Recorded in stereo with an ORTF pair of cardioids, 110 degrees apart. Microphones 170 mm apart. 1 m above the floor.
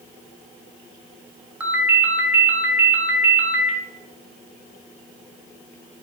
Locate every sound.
1.6 s a ringtone: 10° right, 3 m